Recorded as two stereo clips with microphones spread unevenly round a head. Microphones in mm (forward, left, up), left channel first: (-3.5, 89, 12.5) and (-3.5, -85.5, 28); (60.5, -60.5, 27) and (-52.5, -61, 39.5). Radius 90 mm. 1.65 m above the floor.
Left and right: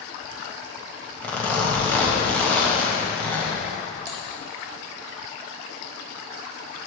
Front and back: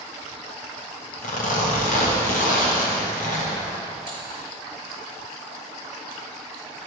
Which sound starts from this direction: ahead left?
Typing on a keyboard, at 4.1 s.